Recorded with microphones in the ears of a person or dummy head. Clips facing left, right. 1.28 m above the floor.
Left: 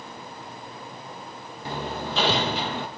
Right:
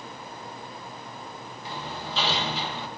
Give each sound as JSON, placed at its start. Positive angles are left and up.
{"t": 1.6, "sound": "hammering", "side_deg": 50, "distance_m": 1.4}